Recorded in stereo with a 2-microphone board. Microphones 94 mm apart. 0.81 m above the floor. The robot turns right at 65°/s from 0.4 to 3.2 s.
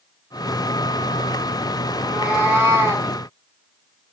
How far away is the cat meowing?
About 0.7 m.